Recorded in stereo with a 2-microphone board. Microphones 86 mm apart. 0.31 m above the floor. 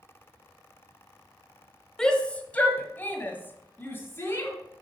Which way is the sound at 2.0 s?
5° left (ahead or behind).